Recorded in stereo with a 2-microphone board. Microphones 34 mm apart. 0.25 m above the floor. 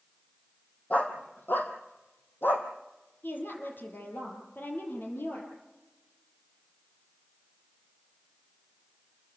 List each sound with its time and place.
0.9 s a dog barking: 45° left (ahead or behind), 2.5 m; by 2.7 s 80° left, 2.5 m
3.2 s a woman speaking: 65° left (ahead or behind), 7 m